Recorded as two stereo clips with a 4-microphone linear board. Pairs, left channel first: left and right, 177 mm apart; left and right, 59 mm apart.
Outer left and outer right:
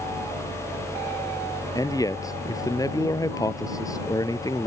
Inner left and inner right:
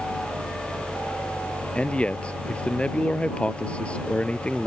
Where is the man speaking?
20° left (ahead or behind).